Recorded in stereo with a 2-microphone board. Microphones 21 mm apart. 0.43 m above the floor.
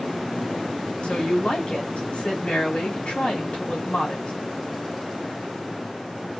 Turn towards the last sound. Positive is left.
turn(degrees=55)  # may be behind; listen again after turning